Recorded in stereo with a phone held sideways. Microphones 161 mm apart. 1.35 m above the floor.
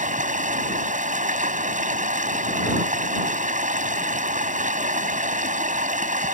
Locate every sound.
0.0 s running water: 50° right (ahead or behind)